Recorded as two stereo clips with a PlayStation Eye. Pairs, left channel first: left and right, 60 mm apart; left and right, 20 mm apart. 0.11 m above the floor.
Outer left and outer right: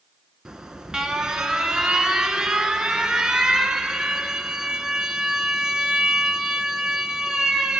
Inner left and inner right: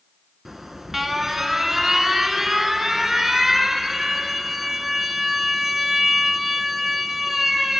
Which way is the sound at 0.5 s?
10° right (ahead or behind).